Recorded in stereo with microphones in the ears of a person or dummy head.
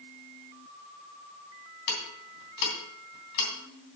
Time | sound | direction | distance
1.9 | ticking | 65° left (ahead or behind) | 2.5 m